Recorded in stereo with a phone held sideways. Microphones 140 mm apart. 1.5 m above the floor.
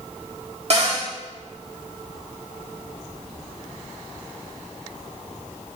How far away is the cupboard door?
About 2.5 m.